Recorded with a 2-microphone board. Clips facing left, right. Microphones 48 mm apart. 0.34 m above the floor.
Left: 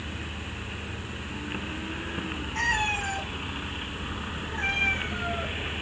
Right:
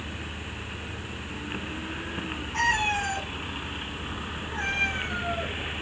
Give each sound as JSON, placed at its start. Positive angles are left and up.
{"t": 2.5, "sound": "a cat meowing", "side_deg": -90, "distance_m": 3.0}